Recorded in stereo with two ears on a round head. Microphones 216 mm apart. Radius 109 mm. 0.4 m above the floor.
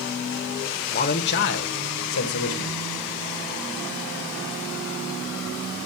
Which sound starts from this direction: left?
A man speaking, at 0.9 s.